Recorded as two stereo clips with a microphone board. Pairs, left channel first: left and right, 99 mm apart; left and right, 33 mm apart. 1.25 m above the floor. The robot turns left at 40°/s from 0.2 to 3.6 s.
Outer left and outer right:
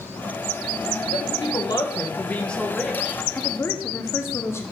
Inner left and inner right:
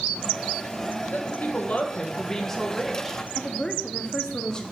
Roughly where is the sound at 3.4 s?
Centre.